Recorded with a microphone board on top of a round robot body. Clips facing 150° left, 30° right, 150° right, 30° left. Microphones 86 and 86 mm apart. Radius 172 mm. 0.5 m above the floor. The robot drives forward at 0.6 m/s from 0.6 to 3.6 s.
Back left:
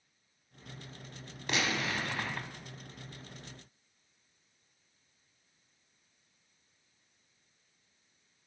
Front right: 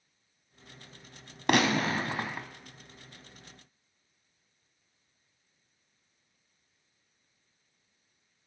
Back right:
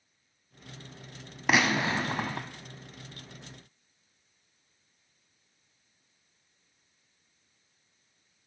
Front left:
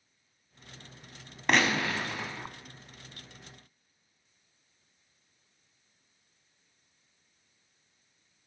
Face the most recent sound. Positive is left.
turn(degrees=-145)